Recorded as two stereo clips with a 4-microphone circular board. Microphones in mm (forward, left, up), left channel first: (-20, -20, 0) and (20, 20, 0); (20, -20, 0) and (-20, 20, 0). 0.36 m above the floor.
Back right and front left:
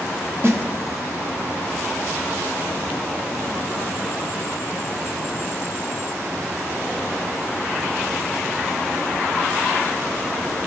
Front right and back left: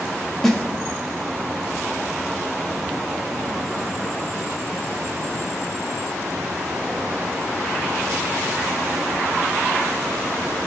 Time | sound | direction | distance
0.4 | a snare drum | 35° left | 1.1 m